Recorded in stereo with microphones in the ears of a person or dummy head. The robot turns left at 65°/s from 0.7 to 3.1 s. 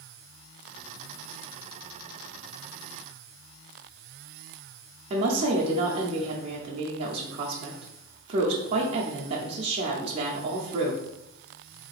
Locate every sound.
5.1 s a woman speaking: 35° right (ahead or behind), 0.5 m